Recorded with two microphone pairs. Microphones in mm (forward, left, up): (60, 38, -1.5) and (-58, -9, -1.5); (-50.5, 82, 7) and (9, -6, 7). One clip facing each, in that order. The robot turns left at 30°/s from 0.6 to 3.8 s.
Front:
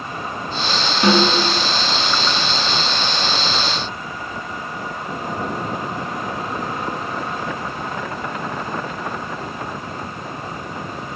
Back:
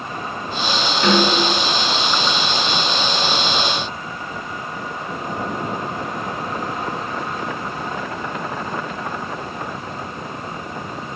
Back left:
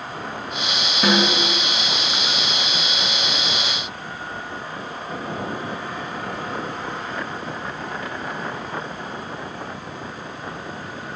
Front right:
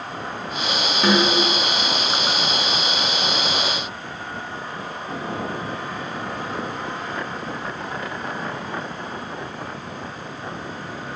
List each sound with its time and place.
1.0 s a snare drum: 95° left, 3.5 m; by 1.5 s 85° left, 3.5 m